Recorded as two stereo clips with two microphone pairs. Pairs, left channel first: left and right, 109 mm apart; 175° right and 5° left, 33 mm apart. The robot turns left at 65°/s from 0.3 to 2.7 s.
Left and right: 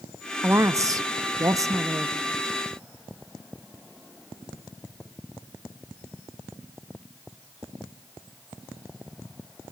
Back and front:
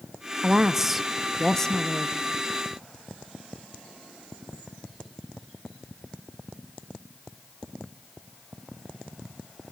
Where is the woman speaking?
40° right, 0.6 m; by 2.2 s 150° right, 0.6 m.